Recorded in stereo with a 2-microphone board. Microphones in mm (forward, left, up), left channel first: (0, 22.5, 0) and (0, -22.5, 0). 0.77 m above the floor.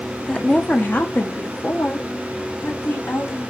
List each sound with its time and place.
0.3 s a woman speaking: 20° left (ahead or behind), 0.6 m; by 3.4 s 75° left (ahead or behind), 2 m